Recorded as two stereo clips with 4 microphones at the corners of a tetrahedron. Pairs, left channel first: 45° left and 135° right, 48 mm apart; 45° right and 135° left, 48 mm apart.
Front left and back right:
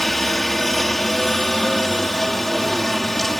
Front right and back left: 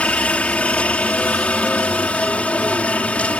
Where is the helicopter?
35° right.